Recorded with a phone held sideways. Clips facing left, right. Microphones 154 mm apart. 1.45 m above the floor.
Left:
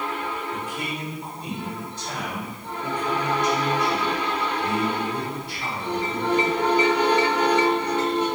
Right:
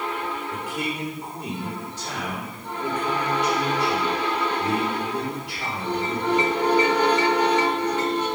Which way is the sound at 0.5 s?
85° right.